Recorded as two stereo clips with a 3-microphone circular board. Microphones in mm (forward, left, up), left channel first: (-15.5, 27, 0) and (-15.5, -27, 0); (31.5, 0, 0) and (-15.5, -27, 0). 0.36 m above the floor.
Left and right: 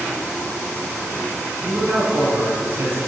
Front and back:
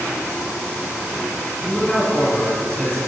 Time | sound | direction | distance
1.6 | a man speaking | 45° right | 3.5 m